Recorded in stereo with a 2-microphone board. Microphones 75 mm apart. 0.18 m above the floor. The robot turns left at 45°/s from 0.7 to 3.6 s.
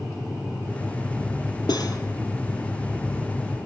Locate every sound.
1.7 s cutlery clinking: 70° left (ahead or behind), 3 m; by 2.0 s 55° left (ahead or behind), 3 m